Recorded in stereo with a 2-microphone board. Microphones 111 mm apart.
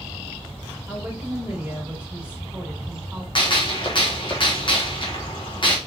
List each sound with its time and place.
0.9 s a woman speaking: 10° right (ahead or behind), 3 m
3.4 s a gunshot: 45° left (ahead or behind), 1.2 m